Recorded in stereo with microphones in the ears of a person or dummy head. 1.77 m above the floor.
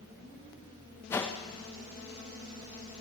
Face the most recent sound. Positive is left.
turn(degrees=10)  # may be behind; listen again after turning